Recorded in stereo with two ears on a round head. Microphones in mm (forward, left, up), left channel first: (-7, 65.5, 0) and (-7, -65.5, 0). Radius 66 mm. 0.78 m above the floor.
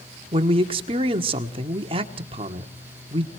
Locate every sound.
0.3 s a man speaking: 35° right (ahead or behind), 1.6 m